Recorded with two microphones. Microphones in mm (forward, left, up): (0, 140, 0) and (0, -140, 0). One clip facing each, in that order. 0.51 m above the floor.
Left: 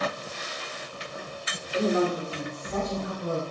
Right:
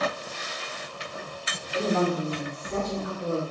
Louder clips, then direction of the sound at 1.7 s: Left 1 dB; 20° left (ahead or behind).